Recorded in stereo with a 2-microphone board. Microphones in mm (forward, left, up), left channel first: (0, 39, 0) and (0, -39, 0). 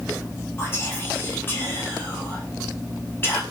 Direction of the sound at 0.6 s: 30° left (ahead or behind).